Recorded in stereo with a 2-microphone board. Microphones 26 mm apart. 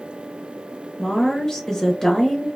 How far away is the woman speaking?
About 0.7 m.